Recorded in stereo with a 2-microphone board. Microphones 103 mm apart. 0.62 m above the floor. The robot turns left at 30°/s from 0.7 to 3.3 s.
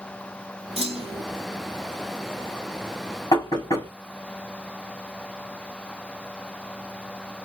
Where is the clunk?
65° right (ahead or behind), 0.9 m; by 1.2 s 60° right (ahead or behind), 0.9 m.